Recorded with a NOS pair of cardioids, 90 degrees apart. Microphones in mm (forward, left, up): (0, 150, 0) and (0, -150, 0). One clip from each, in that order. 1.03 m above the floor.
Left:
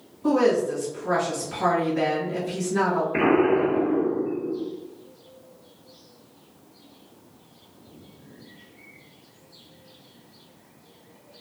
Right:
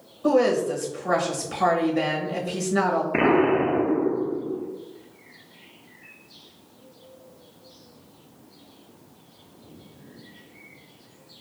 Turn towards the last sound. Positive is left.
turn(degrees=-25)